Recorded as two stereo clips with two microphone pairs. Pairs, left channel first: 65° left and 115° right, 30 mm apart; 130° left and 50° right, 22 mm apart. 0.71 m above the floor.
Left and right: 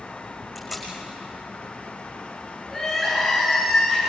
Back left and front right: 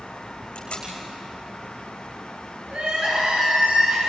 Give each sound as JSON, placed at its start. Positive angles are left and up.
{"t": 0.6, "sound": "tape being pulled", "azimuth_deg": 160, "distance_m": 9.5}
{"t": 2.7, "sound": "crying", "azimuth_deg": -20, "distance_m": 9.0}